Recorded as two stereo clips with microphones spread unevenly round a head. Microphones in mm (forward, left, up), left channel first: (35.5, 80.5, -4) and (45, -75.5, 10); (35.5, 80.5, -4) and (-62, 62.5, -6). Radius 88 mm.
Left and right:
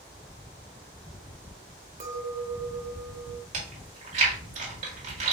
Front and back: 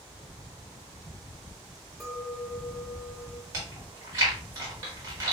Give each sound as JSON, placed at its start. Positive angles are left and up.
{"t": 2.0, "sound": "a clink", "azimuth_deg": -75, "distance_m": 0.9}
{"t": 3.5, "sound": "chewing", "azimuth_deg": -115, "distance_m": 1.7}